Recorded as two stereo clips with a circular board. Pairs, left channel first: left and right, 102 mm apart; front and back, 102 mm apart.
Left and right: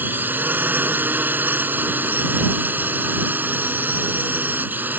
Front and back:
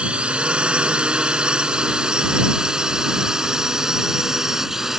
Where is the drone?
120° right; by 5.0 s 105° right.